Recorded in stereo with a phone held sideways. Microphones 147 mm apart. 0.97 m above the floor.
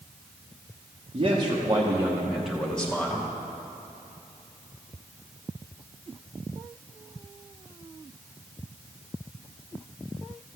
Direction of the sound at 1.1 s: 35° right (ahead or behind).